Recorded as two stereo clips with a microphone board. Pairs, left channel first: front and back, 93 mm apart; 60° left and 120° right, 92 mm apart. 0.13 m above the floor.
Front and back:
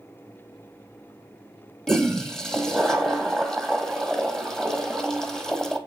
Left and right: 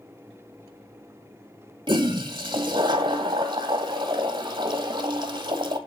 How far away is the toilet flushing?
About 1.1 m.